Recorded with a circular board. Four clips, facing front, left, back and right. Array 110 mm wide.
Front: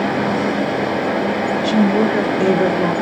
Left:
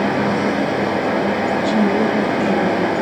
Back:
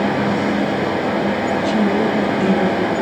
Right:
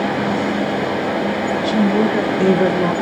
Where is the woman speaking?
25° right, 2.5 m; by 2.9 s 70° right, 1.7 m.